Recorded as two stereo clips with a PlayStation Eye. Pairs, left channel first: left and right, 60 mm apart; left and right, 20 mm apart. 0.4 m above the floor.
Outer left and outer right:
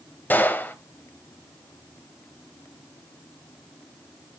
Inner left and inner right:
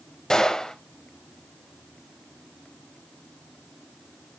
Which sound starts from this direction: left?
A gunshot, at 0.3 s.